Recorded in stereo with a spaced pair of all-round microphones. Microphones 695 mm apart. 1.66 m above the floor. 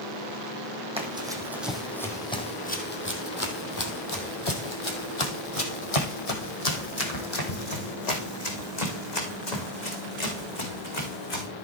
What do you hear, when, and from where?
1.0 s running footsteps: 10° right (ahead or behind), 3 m; by 11.5 s 65° left (ahead or behind), 5 m